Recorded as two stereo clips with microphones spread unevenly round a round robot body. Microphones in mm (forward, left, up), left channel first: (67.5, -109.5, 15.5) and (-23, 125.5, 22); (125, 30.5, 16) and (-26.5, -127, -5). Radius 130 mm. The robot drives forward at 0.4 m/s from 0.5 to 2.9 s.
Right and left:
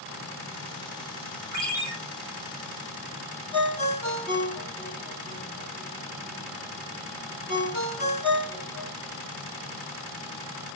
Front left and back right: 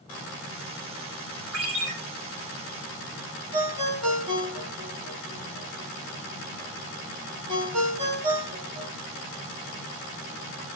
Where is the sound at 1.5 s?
170° right, 3.5 m.